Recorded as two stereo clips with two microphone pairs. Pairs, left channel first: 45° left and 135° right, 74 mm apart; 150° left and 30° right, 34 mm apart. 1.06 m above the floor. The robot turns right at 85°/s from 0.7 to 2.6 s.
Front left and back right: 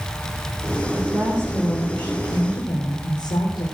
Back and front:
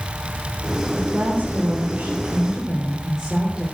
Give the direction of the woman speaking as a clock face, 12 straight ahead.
3 o'clock.